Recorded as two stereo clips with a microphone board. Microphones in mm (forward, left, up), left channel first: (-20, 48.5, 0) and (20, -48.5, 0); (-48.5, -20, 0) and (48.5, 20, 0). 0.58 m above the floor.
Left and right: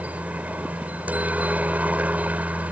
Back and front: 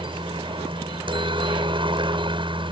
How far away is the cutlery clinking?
I don't hear cutlery clinking.